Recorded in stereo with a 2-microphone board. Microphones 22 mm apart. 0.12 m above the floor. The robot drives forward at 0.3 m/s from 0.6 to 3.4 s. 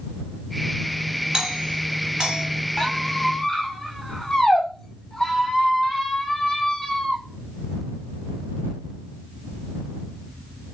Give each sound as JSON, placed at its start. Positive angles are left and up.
{"t": 1.3, "sound": "a doorbell", "side_deg": -30, "distance_m": 2.0}
{"t": 2.8, "sound": "a squeak", "side_deg": 30, "distance_m": 0.8}